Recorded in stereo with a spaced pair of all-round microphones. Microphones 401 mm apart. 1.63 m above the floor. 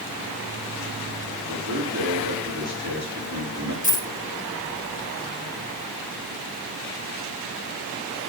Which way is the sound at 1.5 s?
40° right (ahead or behind).